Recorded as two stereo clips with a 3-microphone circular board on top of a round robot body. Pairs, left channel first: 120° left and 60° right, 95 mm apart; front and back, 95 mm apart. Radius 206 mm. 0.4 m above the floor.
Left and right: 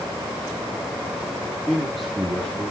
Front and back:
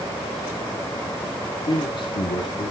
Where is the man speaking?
35° left, 3.5 m; by 2.7 s 40° left, 4 m.